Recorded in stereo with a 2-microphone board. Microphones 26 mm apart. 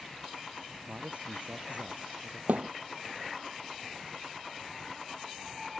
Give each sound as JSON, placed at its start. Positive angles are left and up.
{"t": 0.8, "sound": "a man speaking", "side_deg": -50}
{"t": 2.5, "sound": "a thud", "side_deg": -70}